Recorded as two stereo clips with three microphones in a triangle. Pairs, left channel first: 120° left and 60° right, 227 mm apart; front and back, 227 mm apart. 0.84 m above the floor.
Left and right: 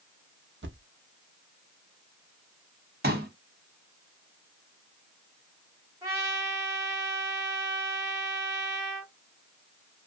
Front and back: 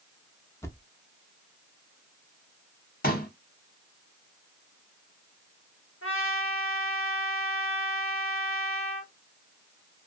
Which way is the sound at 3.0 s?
35° right.